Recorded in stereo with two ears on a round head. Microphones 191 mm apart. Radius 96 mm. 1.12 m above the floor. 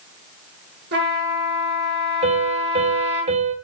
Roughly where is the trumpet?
Right.